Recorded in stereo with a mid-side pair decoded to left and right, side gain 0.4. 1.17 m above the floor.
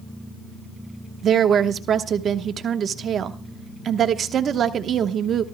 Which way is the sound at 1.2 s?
60° right.